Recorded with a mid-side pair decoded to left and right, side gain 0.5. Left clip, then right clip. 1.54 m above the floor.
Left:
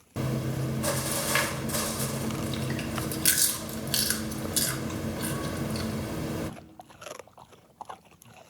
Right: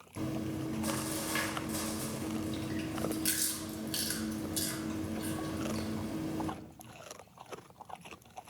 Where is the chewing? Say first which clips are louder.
Left 5 dB; 60° left, 0.5 m.